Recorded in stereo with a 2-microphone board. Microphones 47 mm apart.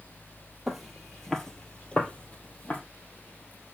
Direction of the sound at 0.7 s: 5° right (ahead or behind).